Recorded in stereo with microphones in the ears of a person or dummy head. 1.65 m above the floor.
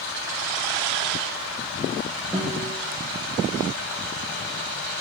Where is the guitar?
Centre (ahead or behind), 1.7 m.